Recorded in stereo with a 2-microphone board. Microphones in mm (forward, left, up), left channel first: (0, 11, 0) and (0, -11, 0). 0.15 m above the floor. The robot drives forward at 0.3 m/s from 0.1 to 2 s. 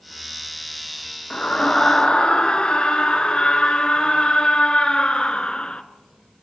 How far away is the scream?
About 1.7 m.